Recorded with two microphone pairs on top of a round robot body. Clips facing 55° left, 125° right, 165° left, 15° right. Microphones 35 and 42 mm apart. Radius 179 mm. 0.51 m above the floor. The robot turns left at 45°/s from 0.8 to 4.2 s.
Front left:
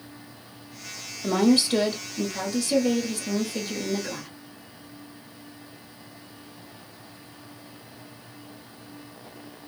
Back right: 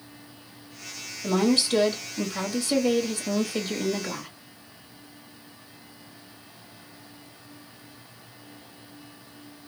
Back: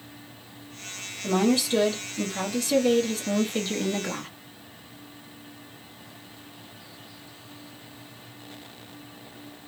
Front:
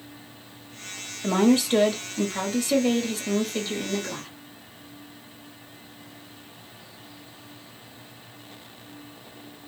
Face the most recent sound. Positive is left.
turn(degrees=-140)